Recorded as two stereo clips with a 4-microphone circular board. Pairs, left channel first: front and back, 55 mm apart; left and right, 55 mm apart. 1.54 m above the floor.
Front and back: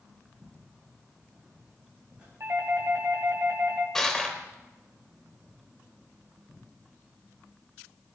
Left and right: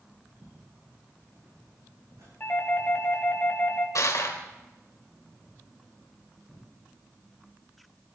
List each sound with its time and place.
0.4 s footsteps: 95° right, 6.5 m; by 2.3 s 110° right, 7 m
2.4 s a doorbell: 140° left, 2.5 m
4.0 s crushing: 85° left, 3.5 m